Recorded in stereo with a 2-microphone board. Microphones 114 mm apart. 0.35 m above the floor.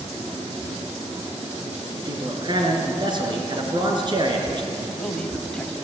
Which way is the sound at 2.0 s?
40° right (ahead or behind).